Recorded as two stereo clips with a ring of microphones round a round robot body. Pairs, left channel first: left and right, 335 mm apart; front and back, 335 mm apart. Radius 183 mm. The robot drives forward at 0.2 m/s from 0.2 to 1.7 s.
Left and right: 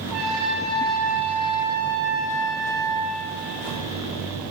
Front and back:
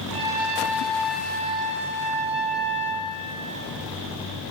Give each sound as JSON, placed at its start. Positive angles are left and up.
{"t": 0.1, "sound": "a trumpet", "azimuth_deg": 180, "distance_m": 1.6}